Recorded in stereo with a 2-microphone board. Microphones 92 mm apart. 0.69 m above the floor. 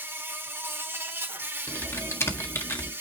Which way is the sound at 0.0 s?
25° right (ahead or behind).